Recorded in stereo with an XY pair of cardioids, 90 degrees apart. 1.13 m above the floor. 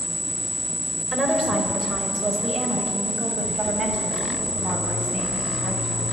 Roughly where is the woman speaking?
Ahead right.